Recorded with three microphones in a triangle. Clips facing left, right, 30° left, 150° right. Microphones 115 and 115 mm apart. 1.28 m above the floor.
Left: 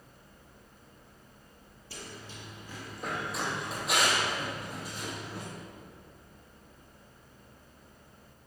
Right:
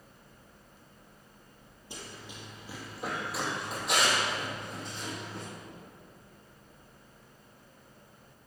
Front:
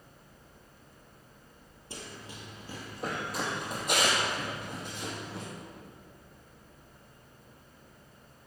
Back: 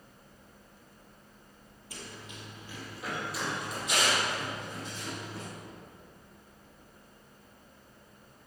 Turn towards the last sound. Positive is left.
turn(degrees=10)